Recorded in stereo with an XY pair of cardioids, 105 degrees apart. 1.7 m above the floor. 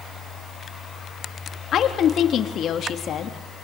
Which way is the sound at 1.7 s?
60° left.